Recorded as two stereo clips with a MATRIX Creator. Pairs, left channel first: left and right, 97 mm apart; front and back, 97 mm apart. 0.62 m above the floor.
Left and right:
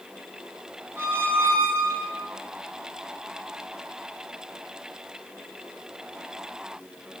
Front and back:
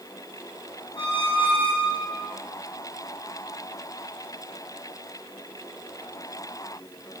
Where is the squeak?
25° right, 3 m.